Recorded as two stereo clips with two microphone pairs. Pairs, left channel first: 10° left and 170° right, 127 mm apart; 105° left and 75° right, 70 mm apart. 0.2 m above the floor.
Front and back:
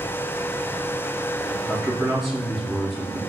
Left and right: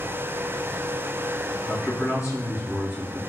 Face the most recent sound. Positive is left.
turn(degrees=105)